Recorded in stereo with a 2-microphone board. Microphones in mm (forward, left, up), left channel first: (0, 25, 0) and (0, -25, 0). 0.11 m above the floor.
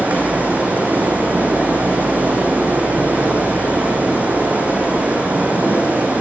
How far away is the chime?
I don't hear a chime.